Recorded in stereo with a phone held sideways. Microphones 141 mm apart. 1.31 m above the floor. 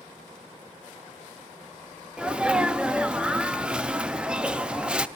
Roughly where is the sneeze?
Centre.